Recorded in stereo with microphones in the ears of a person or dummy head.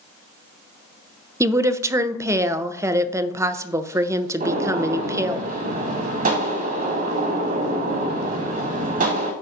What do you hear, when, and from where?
1.4 s a woman speaking: 10° right (ahead or behind), 0.6 m
4.4 s a gunshot: 50° right (ahead or behind), 1.0 m